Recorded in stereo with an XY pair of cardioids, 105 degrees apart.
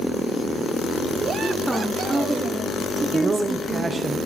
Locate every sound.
1.4 s a woman speaking: 5° right, 1.8 m; by 3.9 s 35° right, 2.5 m
3.1 s a man speaking: 25° right, 0.9 m